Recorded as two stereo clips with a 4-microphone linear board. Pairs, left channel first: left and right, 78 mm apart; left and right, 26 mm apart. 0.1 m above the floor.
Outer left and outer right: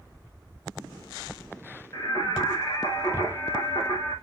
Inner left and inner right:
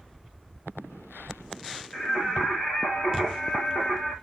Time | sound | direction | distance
1.9 | singing | 45° left (ahead or behind) | 5 m